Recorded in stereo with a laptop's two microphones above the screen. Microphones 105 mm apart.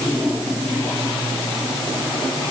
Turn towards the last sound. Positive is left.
No sound to turn to.